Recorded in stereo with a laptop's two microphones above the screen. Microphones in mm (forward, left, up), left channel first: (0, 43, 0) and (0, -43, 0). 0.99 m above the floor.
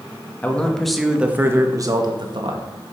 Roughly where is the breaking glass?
No breaking glass in this recording.